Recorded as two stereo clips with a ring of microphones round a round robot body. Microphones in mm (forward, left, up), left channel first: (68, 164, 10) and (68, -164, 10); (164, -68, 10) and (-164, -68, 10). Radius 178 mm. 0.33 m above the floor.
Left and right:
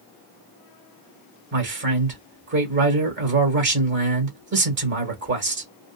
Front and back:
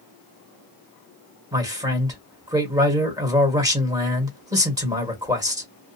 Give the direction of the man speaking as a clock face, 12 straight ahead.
4 o'clock.